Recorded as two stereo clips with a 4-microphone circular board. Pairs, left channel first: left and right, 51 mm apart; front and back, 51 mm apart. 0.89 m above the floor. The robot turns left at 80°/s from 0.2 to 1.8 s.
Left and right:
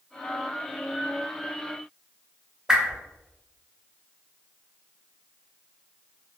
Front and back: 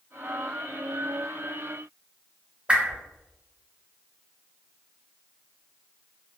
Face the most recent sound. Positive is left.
turn(degrees=-150)